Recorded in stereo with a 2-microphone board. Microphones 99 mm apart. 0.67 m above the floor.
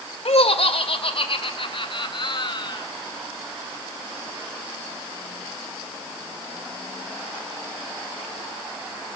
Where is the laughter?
70° left (ahead or behind), 2 m; by 2.9 s 45° left (ahead or behind), 3.5 m.